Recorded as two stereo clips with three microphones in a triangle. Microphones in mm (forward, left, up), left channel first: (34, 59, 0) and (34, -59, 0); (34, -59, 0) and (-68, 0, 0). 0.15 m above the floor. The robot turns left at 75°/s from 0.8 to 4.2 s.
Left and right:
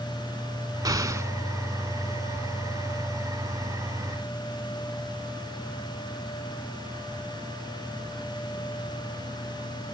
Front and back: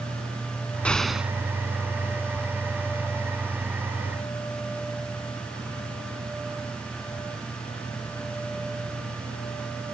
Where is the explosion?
100° right; by 1.3 s 140° right.